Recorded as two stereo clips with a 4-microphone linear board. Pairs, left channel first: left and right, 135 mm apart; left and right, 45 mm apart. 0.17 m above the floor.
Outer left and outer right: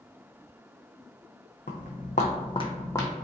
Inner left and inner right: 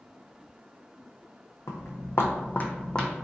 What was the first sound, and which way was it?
Footsteps, 85° left.